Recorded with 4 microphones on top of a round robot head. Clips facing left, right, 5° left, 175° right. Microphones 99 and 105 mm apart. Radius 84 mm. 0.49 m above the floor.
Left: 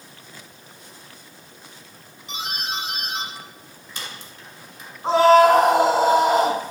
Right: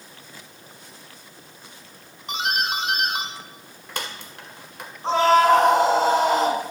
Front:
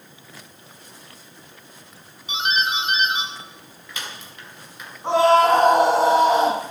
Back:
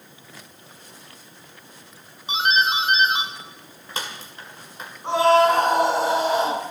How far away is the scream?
About 5.5 m.